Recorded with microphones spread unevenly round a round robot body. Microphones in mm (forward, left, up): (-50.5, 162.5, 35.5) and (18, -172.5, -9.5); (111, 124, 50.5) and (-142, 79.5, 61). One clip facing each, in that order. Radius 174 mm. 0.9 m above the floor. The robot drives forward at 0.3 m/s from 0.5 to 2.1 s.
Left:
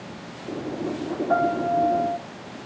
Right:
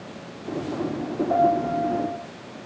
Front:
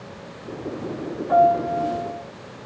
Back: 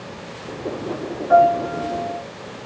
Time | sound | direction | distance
1.3 | a piano | 50° left | 6 m